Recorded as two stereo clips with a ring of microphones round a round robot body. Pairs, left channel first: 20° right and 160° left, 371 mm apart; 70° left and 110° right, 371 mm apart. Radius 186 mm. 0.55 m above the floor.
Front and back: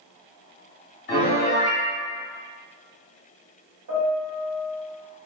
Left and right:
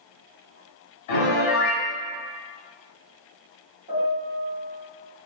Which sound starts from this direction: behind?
A piano, at 3.9 s.